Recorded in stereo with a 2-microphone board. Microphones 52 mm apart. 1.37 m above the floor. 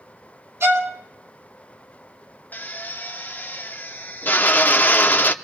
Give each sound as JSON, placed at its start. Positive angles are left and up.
{"t": 0.6, "sound": "a violin", "side_deg": -60, "distance_m": 2.5}
{"t": 2.5, "sound": "a drill", "side_deg": 35, "distance_m": 0.6}